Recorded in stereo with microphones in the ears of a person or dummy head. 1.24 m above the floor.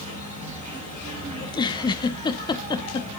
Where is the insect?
40° right (ahead or behind), 5.5 m.